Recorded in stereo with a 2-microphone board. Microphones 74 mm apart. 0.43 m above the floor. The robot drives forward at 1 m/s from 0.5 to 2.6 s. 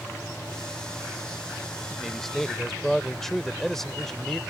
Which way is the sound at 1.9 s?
5° left (ahead or behind).